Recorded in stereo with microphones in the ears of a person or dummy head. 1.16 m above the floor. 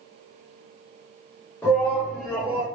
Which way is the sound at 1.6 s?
15° left (ahead or behind).